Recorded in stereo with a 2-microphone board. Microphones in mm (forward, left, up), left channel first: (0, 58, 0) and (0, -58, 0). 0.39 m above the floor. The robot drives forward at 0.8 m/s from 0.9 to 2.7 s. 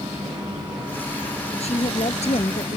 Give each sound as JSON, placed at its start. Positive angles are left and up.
{"t": 1.6, "sound": "a woman speaking", "side_deg": 65}